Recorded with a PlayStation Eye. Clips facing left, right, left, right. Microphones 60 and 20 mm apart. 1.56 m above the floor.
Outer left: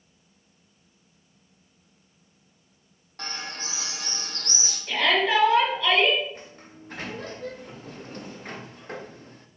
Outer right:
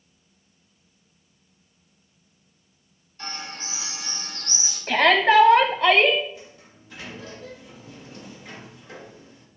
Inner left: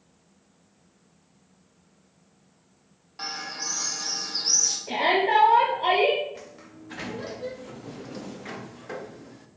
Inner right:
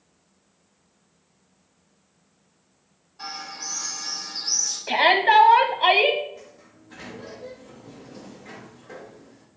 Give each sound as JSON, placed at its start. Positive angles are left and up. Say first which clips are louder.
{"t": 3.2, "sound": "a bird", "louder": "even, inner left 2 dB", "side_deg": 70, "distance_m": 2.5}
{"t": 4.9, "sound": "a shout", "louder": "outer right 5 dB, inner right 6 dB", "side_deg": -50, "distance_m": 0.8}
{"t": 6.3, "sound": "a sliding door", "louder": "outer left 1 dB, inner left 3 dB", "side_deg": 45, "distance_m": 0.8}